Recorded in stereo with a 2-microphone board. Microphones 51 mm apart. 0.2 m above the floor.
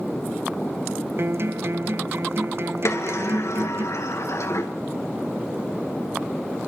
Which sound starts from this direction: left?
A sliding door, at 2.9 s.